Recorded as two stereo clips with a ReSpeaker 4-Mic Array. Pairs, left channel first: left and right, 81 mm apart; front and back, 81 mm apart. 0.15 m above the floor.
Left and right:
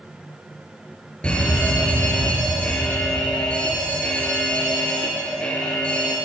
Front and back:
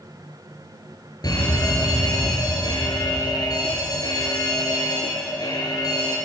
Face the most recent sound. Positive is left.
turn(degrees=15)